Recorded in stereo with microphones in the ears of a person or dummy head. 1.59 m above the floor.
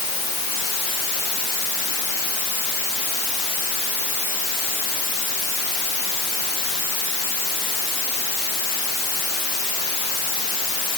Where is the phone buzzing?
No phone buzzing in this recording.